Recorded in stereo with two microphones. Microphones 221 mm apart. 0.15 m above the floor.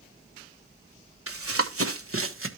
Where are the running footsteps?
80° right, 1.6 m; by 2.5 s 65° right (ahead or behind), 1.7 m.